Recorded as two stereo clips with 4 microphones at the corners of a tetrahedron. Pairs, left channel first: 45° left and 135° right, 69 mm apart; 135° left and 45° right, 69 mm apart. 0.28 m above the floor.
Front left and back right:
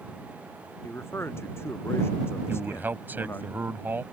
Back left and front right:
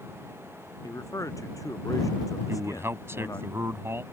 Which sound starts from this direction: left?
A man speaking, at 0.8 s.